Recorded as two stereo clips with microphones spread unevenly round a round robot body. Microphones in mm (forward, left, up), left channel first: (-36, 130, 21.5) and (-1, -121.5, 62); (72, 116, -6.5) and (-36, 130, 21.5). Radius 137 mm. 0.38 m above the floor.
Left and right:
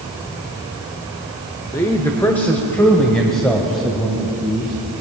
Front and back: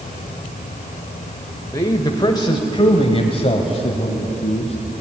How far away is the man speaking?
About 1.4 m.